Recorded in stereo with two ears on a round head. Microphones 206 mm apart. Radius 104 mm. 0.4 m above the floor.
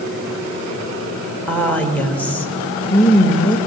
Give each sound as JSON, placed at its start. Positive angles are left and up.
{"t": 1.5, "sound": "a woman speaking", "side_deg": 5, "distance_m": 1.7}